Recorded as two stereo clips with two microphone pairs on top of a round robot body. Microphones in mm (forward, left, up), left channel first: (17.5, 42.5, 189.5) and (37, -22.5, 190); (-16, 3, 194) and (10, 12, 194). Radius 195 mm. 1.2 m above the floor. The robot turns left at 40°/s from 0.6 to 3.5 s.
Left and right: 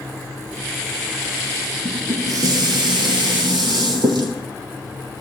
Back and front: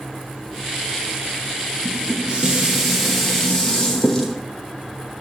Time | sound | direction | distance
1.9 | dishes clattering | 20° right | 0.7 m